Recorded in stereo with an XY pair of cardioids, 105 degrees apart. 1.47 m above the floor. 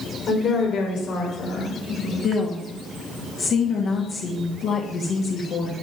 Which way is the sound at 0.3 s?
60° left.